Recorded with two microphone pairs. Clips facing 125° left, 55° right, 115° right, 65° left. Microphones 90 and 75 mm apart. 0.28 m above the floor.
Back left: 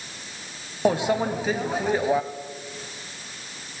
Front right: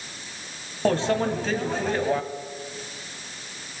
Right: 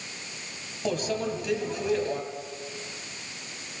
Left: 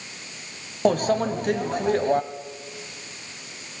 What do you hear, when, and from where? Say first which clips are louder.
0.8 s a microwave: even, left 8 dB; 50° left, 1.2 m